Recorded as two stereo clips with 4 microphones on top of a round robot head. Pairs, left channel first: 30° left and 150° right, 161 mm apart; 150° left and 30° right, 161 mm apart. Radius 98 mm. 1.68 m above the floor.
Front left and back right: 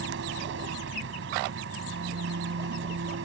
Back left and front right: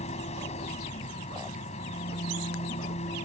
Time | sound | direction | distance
0.0 | an engine running | 160° right | ?